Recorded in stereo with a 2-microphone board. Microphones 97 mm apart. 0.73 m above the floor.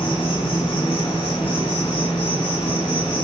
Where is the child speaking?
I don't hear a child speaking.